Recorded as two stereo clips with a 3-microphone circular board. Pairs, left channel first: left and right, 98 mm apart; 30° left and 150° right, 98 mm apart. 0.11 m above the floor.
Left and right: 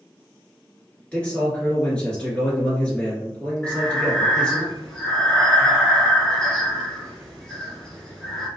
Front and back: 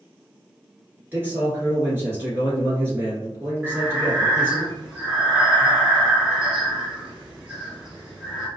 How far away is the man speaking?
About 1.7 m.